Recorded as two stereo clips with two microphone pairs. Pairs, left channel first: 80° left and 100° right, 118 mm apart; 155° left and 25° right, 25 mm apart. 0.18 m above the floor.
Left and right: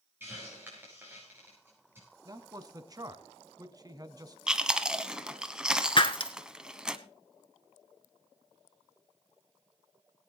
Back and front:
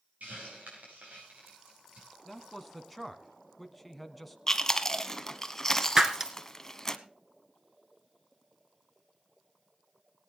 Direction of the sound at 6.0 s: 40° left.